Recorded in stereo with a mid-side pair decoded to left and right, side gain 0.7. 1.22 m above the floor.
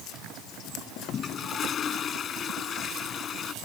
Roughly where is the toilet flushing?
Ahead left.